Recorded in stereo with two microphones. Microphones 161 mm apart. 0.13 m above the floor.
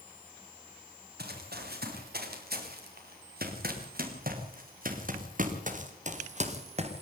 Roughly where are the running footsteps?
Right.